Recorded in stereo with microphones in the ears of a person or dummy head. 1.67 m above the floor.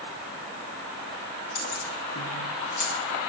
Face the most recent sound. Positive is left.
turn(degrees=60)  # may be behind; listen again after turning